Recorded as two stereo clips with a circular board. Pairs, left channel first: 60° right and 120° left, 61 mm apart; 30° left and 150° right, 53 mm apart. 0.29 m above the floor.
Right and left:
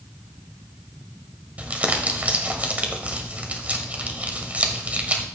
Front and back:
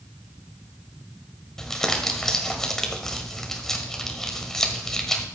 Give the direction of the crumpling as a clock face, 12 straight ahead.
9 o'clock.